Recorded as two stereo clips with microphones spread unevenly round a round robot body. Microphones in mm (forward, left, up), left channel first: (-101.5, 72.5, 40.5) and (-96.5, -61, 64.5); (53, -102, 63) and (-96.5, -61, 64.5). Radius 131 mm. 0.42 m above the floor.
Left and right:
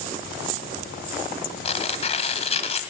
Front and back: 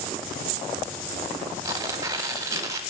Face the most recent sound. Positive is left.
turn(degrees=100)